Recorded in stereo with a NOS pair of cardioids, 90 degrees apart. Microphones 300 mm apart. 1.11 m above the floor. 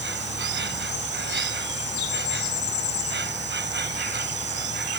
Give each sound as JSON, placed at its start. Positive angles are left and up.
{"t": 0.0, "sound": "an insect", "azimuth_deg": -35}